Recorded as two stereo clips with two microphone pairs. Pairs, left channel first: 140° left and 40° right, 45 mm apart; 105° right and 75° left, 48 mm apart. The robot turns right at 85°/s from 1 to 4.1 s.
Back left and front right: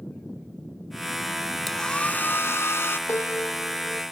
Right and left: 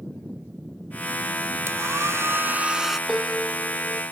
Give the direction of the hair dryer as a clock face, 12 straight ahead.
10 o'clock.